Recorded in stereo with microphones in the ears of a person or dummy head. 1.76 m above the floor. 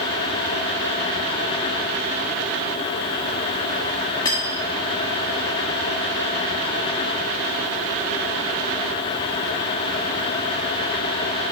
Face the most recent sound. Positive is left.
turn(degrees=25)  # may be behind; listen again after turning